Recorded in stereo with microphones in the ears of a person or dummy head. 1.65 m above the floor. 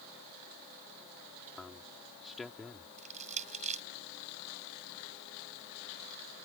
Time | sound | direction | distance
1.6 | a man speaking | centre (ahead or behind) | ?
3.0 | crushing | 40° right (ahead or behind) | ?